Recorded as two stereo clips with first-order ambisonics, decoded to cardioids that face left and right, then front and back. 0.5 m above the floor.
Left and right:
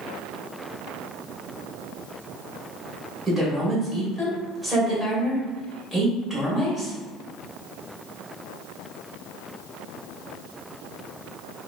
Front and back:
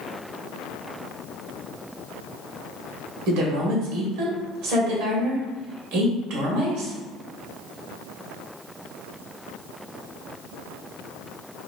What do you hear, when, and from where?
3.3 s a woman speaking: 175° left, 1.7 m